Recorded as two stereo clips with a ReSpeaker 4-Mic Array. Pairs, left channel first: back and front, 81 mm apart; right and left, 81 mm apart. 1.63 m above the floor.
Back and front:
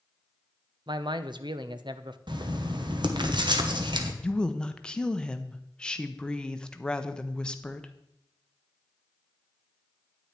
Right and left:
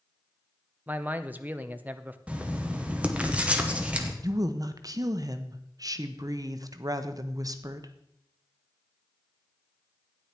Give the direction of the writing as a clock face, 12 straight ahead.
11 o'clock.